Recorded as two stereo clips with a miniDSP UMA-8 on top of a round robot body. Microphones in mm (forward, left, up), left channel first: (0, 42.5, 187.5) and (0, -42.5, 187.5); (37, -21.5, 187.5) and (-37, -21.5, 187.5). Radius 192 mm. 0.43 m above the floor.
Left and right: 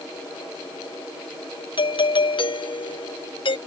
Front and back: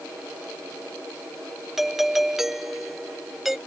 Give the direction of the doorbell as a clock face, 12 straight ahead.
9 o'clock.